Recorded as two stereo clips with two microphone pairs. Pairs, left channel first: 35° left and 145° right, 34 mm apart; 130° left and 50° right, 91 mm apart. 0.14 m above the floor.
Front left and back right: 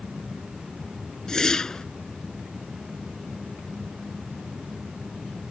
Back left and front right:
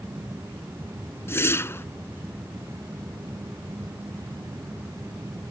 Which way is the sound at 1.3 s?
95° left.